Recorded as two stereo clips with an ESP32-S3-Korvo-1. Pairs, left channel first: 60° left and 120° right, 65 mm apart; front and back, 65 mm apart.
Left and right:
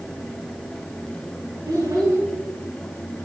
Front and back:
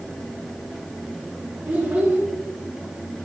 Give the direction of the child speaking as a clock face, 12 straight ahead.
4 o'clock.